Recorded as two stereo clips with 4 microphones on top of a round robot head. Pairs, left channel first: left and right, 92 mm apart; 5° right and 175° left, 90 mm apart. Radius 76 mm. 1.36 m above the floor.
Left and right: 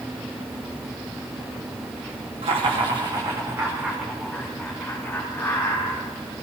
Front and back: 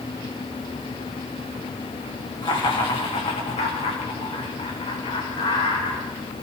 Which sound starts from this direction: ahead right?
Laughter, at 2.4 s.